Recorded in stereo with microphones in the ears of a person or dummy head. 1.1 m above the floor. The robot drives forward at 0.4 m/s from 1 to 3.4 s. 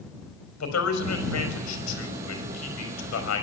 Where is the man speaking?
90° left, 5 m; by 3.4 s 75° left (ahead or behind), 5 m.